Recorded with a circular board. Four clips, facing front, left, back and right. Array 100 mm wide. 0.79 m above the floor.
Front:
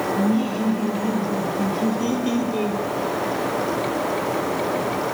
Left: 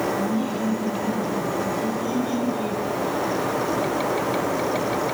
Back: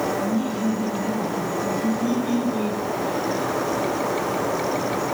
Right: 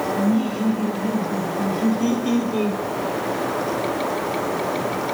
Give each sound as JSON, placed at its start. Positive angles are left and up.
{"t": 0.2, "sound": "laughter", "azimuth_deg": -25, "distance_m": 5.0}